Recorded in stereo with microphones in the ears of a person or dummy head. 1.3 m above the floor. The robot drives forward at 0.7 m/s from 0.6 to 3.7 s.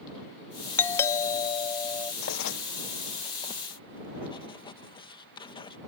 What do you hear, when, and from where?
0.8 s a doorbell: 10° left (ahead or behind); by 2.1 s 15° left (ahead or behind)
2.2 s writing: 85° left; by 5.8 s 25° left (ahead or behind)